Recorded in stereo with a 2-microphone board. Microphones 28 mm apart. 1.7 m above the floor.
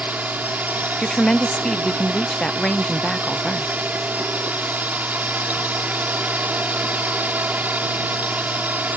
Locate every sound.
0.0 s a drone: 75° right (ahead or behind)
1.0 s a woman speaking: 25° left (ahead or behind)